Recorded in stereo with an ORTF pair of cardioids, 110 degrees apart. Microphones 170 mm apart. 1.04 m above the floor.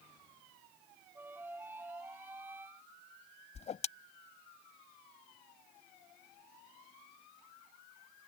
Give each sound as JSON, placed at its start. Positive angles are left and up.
{"t": 1.1, "sound": "a flute", "azimuth_deg": -10}
{"t": 3.5, "sound": "a whoosh", "azimuth_deg": 40}